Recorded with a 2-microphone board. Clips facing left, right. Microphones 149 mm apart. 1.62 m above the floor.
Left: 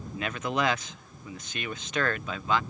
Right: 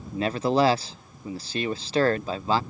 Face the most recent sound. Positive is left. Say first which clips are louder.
# right 8 dB
turn(degrees=-35)  # may be behind; listen again after turning